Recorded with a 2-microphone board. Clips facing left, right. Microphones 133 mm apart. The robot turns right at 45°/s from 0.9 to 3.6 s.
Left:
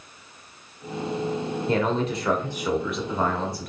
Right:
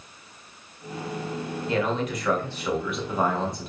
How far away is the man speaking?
About 1.4 m.